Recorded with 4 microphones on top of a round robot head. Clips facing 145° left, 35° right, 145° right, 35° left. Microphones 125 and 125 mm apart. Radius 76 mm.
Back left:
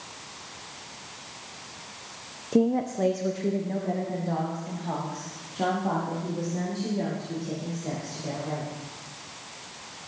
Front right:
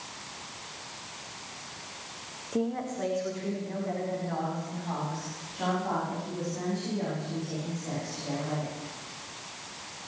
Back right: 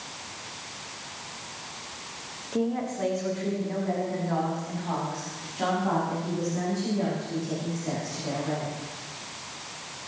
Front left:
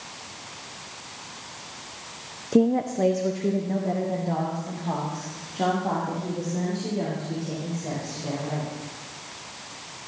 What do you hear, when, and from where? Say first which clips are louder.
2.5 s a woman speaking: back left 7 dB, front left 7 dB; 85° left, 0.7 m; by 8.7 s 95° left, 8 m